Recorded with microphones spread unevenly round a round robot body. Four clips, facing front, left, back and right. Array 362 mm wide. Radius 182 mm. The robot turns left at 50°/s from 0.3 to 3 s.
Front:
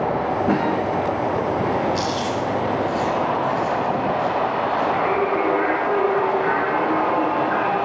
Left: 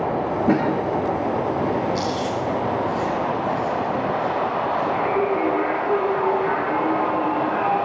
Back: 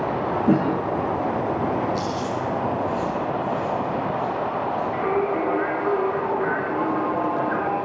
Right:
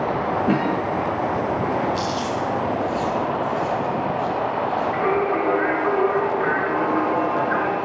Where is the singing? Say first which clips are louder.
Even, front 3 dB; 75° right, 6.5 m.